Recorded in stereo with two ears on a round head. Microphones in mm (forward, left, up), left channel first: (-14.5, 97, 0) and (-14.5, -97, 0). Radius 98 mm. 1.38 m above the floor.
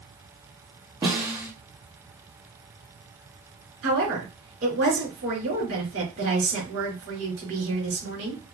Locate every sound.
1.0 s a snare drum: 15° right (ahead or behind), 1.3 m
3.8 s a woman speaking: 85° right, 3.5 m